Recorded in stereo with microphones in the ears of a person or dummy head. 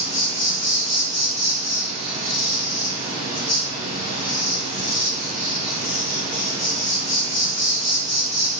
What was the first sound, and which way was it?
An insect, 30° right (ahead or behind).